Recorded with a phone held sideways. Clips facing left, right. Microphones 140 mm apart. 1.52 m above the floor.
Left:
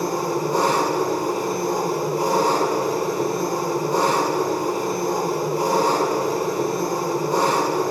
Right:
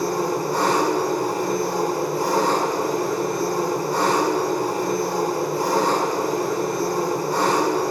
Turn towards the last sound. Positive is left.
turn(degrees=25)  # may be behind; listen again after turning